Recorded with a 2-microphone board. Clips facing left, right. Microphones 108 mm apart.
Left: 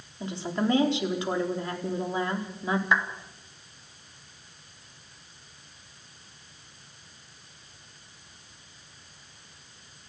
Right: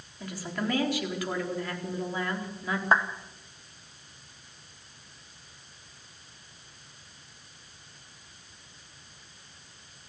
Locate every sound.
0.2 s a woman speaking: 25° left (ahead or behind), 4 m
2.9 s a clap: 35° right (ahead or behind), 1.9 m